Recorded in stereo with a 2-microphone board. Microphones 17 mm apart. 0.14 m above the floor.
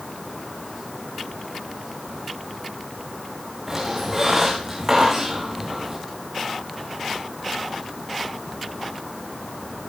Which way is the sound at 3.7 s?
20° right (ahead or behind).